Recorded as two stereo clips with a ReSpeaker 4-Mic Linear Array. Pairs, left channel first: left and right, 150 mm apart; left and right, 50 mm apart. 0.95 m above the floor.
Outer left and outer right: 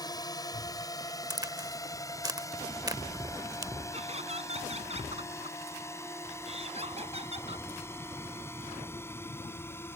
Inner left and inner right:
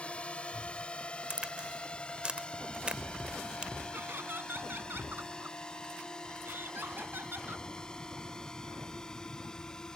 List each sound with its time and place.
0.0 s a drone: 25° left (ahead or behind); by 10.0 s 15° left (ahead or behind)
1.3 s a crack: 25° right (ahead or behind)
3.9 s laughter: 45° right (ahead or behind)